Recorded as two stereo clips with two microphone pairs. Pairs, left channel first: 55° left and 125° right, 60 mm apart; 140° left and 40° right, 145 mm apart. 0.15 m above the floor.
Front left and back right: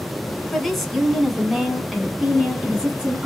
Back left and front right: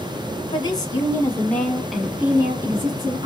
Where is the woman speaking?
140° left, 1.4 m; by 3.3 s 75° right, 1.4 m.